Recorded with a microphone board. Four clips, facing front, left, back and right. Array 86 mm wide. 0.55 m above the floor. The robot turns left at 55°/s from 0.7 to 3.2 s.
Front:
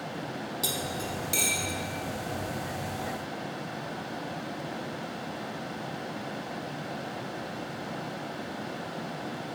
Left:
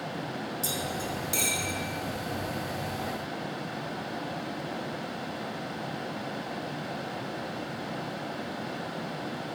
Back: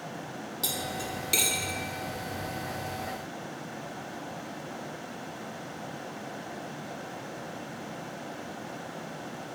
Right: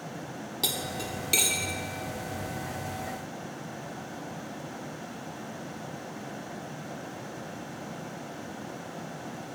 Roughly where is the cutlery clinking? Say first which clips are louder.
Right 2 dB, back 1 dB; right.